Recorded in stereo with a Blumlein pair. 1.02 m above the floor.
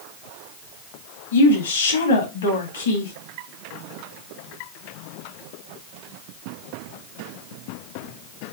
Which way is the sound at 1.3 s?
65° left.